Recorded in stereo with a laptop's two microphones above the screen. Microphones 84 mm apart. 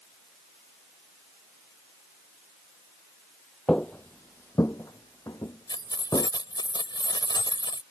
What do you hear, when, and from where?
3.7 s footsteps: 15° left (ahead or behind); by 6.3 s 50° left (ahead or behind)
5.7 s keys jangling: 65° left (ahead or behind)